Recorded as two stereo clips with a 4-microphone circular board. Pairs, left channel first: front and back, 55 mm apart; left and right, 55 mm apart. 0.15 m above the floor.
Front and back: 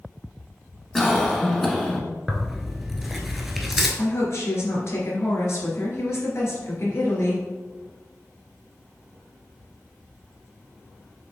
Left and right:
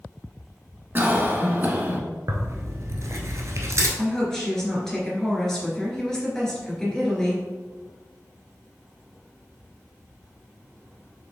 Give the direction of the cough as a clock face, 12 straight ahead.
3 o'clock.